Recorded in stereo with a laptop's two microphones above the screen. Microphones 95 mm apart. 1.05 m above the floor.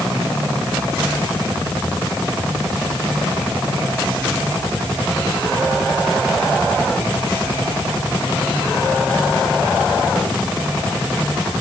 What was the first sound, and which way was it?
Only background noise.